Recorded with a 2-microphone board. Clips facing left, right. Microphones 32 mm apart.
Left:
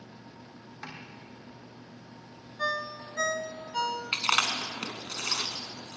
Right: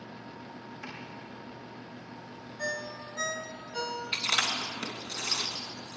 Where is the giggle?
No giggle in this recording.